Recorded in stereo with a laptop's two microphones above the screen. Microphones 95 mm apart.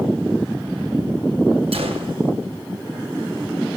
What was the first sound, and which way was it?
A gunshot, 80° right.